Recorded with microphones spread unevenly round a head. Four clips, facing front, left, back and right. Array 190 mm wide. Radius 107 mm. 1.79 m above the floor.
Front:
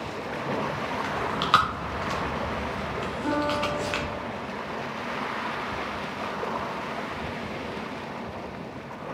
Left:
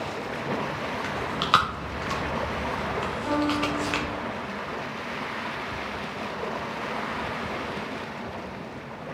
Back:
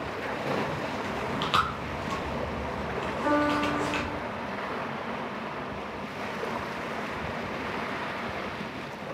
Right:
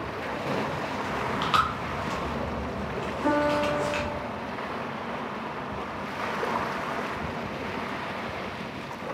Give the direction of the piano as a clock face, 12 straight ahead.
3 o'clock.